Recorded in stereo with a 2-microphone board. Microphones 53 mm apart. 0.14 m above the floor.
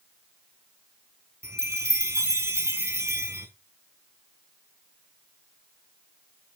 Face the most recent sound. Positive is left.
turn(degrees=-60)  # may be behind; listen again after turning